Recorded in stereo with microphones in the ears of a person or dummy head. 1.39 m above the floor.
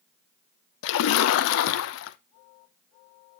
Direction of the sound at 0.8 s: 65° left (ahead or behind).